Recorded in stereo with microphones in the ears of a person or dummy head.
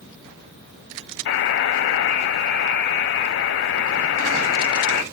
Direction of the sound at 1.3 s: 60° left (ahead or behind).